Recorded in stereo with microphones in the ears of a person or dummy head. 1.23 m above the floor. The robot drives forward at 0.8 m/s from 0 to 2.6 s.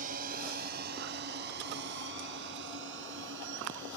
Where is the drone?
55° right (ahead or behind); by 4.0 s 75° right (ahead or behind).